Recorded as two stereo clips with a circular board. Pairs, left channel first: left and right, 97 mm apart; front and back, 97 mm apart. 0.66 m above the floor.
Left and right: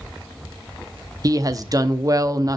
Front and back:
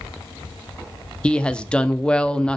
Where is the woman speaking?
75° right, 0.6 m.